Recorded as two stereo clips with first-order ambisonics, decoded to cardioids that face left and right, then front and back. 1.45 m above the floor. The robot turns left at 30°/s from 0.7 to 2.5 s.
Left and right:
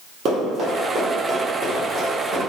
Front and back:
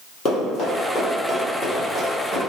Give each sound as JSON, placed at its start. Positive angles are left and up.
{"t": 0.2, "sound": "running footsteps", "azimuth_deg": -40, "distance_m": 1.8}